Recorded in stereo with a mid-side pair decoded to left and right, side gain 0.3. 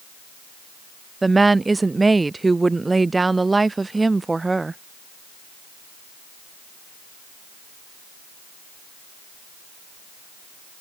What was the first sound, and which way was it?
A woman speaking, 30° right.